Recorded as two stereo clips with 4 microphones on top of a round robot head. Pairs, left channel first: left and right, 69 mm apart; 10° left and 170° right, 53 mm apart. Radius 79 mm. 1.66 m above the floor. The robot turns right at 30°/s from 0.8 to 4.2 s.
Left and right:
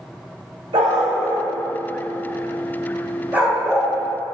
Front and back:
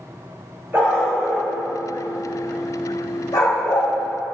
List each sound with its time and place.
0.7 s a dog barking: 100° right, 3.5 m; by 3.9 s 5° right, 3.5 m